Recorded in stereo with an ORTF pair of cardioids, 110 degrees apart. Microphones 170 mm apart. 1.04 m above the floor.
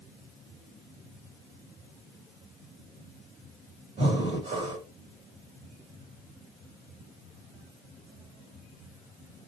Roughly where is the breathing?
Ahead right.